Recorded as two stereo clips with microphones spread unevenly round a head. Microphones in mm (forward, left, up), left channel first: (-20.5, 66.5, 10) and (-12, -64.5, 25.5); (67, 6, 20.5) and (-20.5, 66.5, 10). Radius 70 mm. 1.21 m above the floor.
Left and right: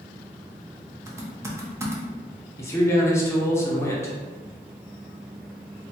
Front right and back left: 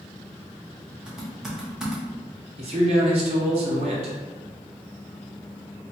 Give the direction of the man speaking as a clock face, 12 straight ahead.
7 o'clock.